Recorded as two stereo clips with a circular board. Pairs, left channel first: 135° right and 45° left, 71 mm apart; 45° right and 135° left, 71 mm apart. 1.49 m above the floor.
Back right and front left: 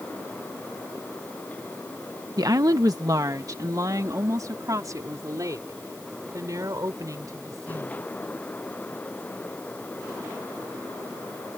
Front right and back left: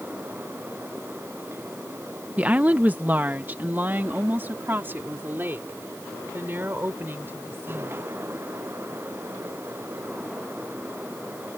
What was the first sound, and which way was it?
A woman speaking, 65° left.